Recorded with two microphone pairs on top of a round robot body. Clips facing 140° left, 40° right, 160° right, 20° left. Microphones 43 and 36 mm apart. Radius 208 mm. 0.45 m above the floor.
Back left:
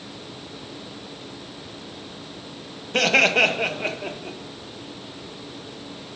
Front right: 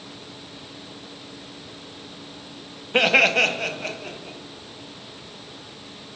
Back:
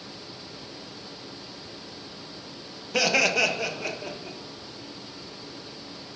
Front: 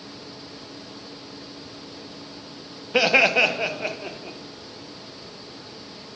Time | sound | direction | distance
2.9 | laughter | 5° right | 1.1 m